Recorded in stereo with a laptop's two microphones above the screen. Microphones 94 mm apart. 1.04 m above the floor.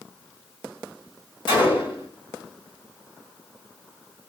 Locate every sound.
1.5 s a gunshot: 60° left (ahead or behind), 1.5 m